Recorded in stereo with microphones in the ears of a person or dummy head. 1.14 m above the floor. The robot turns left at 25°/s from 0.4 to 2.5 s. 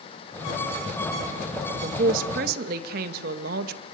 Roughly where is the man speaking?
Right.